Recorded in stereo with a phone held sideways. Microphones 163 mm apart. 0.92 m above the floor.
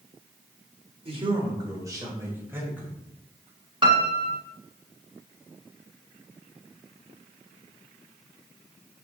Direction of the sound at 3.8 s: 30° right (ahead or behind).